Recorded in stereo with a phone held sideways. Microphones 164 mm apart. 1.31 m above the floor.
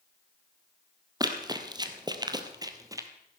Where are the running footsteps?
25° right (ahead or behind), 1.7 m; by 3.1 s 20° right (ahead or behind), 1.5 m.